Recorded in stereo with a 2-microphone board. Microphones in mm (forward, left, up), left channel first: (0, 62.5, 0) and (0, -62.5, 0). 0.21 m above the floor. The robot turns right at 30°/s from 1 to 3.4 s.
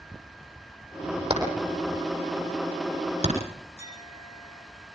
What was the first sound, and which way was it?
Hammering, 55° right (ahead or behind).